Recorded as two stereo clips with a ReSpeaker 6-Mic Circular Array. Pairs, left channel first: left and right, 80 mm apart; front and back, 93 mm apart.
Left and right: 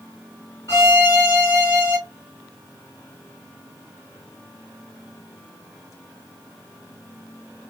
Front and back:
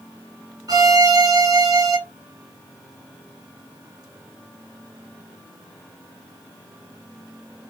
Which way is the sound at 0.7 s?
135° left.